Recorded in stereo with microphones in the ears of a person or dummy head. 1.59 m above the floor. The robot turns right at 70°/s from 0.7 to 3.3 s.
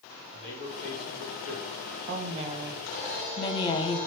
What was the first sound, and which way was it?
A man speaking, 75° left.